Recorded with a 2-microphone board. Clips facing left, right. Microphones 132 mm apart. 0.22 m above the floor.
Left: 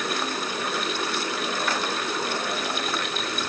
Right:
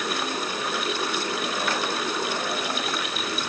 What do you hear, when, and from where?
Only background noise.